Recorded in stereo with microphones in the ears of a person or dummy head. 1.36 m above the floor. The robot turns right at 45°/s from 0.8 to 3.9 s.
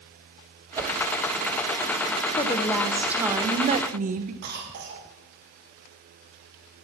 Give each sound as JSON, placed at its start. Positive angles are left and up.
{"t": 0.8, "sound": "a whoosh", "side_deg": -20, "distance_m": 0.6}
{"t": 2.4, "sound": "a woman speaking", "azimuth_deg": 150, "distance_m": 0.7}
{"t": 4.4, "sound": "a cough", "side_deg": -50, "distance_m": 2.0}